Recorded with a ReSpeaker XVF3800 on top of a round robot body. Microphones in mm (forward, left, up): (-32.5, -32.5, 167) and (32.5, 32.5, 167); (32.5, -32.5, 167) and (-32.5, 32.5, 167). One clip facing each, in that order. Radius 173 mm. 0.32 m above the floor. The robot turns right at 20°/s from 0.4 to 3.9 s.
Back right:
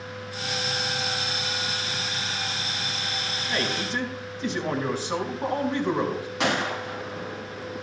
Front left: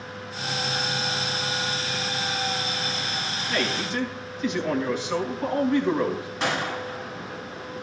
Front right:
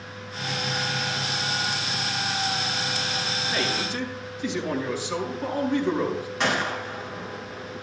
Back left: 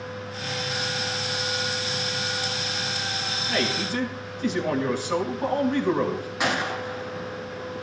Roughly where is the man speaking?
Behind.